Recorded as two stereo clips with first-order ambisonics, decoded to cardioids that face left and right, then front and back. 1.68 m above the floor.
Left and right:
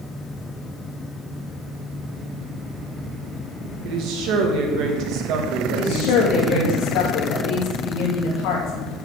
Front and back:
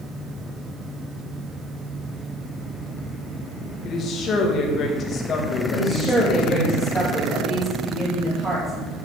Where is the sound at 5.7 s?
105° left, 3 m.